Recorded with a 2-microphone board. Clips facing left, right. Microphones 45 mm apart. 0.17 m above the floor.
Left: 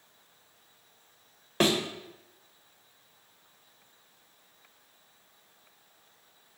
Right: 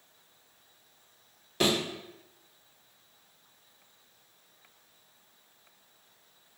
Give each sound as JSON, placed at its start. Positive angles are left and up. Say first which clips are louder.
{"t": 1.6, "sound": "a thud", "louder": "left 2 dB", "side_deg": 45, "distance_m": 1.2}